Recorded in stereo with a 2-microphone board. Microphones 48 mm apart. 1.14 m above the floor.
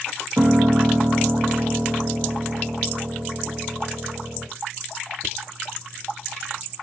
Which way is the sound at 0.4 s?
75° right (ahead or behind).